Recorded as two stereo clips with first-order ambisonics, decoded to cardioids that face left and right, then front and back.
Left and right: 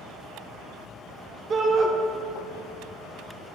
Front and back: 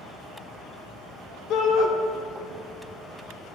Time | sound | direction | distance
1.5 | a shout | 30° right | 0.9 m